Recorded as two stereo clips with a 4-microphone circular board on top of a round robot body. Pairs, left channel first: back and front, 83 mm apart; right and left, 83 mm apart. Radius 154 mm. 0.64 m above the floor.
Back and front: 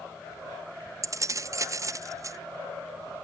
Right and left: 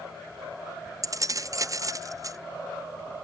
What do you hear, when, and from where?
1.0 s keys jangling: 45° left, 0.7 m